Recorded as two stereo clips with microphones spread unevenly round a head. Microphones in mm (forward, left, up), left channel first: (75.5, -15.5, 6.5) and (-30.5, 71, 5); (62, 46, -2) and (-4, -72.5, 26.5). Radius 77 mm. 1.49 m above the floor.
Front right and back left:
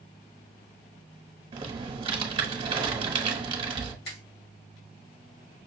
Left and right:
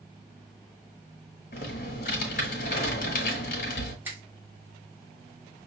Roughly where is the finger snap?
Ahead right.